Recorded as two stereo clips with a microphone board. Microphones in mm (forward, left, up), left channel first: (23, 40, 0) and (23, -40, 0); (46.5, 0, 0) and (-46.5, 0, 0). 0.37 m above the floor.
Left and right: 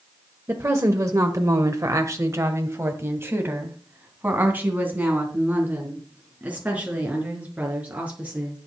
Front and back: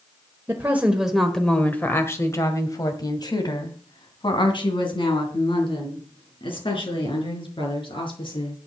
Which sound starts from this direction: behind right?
A woman speaking, at 0.5 s.